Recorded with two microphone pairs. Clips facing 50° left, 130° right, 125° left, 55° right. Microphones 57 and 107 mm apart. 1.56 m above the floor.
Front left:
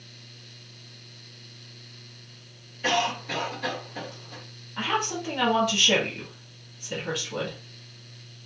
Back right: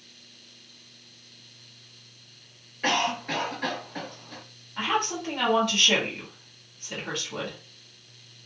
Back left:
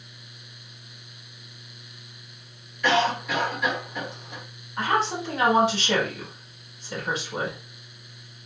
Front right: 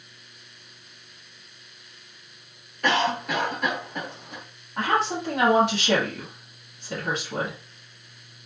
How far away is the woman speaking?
About 1.0 m.